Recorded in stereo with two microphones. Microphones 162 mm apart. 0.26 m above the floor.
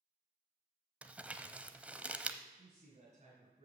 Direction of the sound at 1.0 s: 10° right (ahead or behind).